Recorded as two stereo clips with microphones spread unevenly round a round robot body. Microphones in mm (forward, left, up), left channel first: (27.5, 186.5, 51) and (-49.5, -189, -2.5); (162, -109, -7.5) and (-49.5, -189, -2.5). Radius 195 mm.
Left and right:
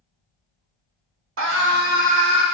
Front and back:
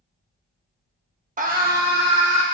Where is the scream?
120° right, 1.1 m; by 2.4 s 170° right, 1.2 m.